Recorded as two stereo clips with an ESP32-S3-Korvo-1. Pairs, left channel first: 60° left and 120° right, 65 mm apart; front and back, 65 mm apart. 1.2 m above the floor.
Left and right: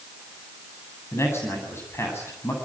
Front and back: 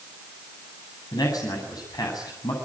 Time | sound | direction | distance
1.1 | a man speaking | 10° left | 8.5 m